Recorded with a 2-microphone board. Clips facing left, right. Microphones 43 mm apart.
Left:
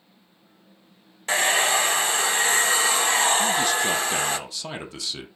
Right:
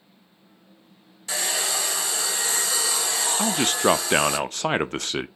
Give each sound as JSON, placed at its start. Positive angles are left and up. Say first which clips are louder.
{"t": 1.3, "sound": "a hair dryer", "louder": "left 7 dB", "side_deg": 40, "distance_m": 0.9}
{"t": 3.4, "sound": "a man speaking", "louder": "even", "side_deg": -50, "distance_m": 0.5}